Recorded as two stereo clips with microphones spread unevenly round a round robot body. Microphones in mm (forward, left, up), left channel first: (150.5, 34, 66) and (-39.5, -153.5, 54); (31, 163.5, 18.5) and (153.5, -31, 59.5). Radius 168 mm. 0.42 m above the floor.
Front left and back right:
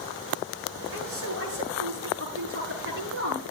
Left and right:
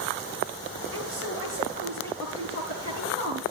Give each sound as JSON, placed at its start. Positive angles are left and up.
{"t": 0.9, "sound": "a woman speaking", "azimuth_deg": -100, "distance_m": 9.0}